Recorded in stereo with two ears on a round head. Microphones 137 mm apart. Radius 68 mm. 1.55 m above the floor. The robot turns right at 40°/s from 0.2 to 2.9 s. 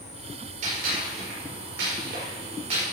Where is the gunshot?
55° right (ahead or behind), 5.5 m; by 2.8 s 35° right (ahead or behind), 5.5 m.